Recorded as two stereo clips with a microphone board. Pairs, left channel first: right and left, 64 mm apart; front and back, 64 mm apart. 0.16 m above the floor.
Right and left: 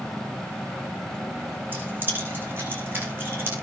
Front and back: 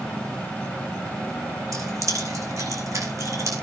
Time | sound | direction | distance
1.7 | keys jangling | 150° left | 7.5 m